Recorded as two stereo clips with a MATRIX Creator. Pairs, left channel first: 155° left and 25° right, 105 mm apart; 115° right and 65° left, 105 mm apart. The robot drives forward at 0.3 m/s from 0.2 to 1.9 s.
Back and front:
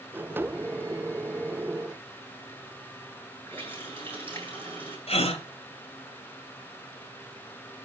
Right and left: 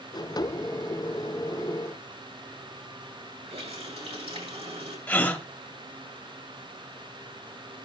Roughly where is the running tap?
Left.